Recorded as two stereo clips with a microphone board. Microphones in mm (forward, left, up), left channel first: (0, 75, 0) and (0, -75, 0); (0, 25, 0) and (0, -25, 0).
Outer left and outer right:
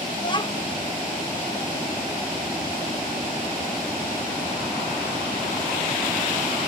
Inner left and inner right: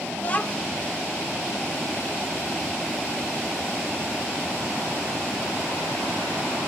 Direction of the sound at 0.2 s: 30° left (ahead or behind).